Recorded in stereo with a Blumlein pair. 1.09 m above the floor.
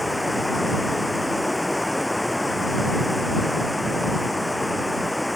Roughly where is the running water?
Ahead.